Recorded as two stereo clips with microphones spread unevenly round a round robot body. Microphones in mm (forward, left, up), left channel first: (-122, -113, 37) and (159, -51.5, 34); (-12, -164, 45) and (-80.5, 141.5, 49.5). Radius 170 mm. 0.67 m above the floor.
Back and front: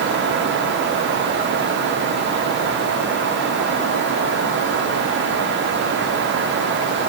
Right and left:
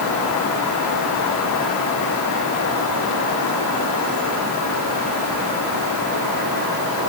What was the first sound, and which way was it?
Only background noise.